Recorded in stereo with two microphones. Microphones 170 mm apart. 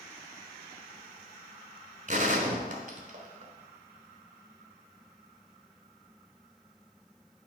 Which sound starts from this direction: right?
A gunshot, at 2.1 s.